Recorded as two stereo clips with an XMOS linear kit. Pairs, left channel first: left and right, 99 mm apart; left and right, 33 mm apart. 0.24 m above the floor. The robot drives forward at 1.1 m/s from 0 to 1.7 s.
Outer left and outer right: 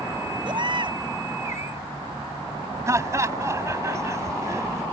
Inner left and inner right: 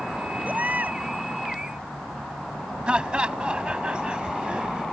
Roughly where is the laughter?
Right.